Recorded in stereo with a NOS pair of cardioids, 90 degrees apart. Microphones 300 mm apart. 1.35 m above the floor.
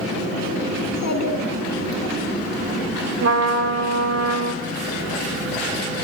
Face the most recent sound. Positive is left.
turn(degrees=-55)